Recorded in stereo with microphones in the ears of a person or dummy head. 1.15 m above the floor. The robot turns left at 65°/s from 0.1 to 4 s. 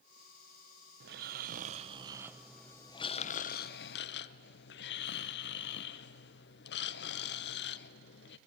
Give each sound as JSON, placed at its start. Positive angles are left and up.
{"t": 1.0, "sound": "snoring", "azimuth_deg": -80, "distance_m": 0.6}